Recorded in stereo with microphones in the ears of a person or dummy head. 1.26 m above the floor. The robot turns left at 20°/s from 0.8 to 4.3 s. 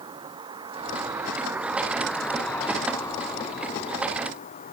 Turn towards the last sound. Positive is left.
turn(degrees=135)